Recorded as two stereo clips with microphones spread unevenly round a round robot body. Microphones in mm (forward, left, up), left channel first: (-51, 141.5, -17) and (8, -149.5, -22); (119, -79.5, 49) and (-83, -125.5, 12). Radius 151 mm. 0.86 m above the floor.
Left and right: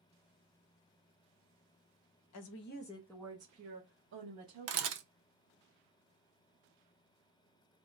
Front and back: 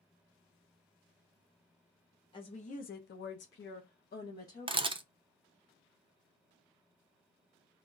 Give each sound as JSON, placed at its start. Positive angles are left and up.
{"t": 2.3, "sound": "a woman speaking", "azimuth_deg": 85, "distance_m": 0.6}
{"t": 4.7, "sound": "a camera shutter", "azimuth_deg": -115, "distance_m": 0.6}